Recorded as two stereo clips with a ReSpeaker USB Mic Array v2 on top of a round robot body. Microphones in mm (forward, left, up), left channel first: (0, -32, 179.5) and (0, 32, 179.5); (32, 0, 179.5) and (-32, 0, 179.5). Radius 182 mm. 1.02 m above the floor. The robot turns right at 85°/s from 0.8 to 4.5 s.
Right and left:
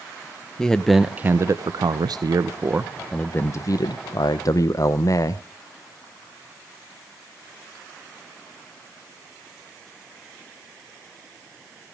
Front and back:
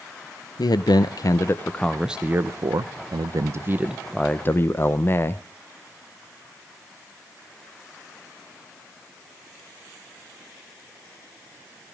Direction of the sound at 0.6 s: 10° right.